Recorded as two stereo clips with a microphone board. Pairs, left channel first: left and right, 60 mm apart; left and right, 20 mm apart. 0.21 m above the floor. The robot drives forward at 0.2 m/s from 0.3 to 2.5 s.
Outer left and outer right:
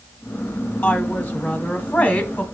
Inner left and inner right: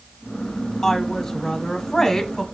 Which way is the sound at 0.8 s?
30° left (ahead or behind).